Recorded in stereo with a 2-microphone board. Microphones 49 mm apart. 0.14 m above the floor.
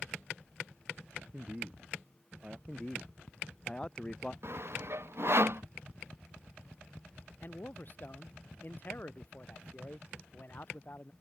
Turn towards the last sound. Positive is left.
turn(degrees=40)  # may be behind; listen again after turning